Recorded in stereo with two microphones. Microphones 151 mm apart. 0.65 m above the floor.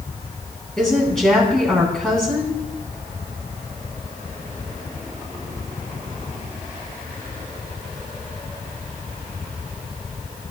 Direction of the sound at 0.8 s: 5° left (ahead or behind).